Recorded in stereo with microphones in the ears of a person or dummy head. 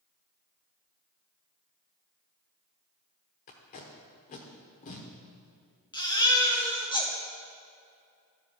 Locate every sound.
3.5 s tape being pulled: 35° left (ahead or behind), 1.0 m
5.9 s a baby crying: 20° left (ahead or behind), 1.3 m